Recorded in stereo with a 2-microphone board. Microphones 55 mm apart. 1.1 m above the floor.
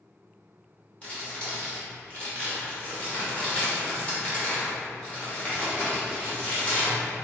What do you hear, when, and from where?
1.0 s crumpling: 25° left (ahead or behind), 1.1 m